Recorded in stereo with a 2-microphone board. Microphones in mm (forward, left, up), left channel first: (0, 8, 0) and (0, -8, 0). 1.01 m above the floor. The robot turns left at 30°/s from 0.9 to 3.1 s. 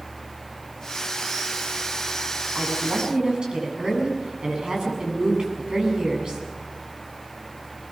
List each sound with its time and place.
2.5 s a woman speaking: 80° right, 8 m; by 6.4 s 65° right (ahead or behind), 8 m